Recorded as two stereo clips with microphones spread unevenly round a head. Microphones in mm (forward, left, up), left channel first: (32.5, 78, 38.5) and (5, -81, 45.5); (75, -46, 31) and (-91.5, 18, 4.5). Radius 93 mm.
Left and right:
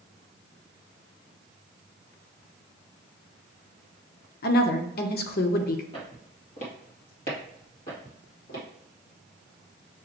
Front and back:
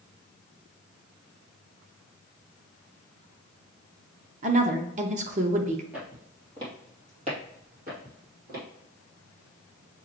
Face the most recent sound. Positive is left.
turn(degrees=115)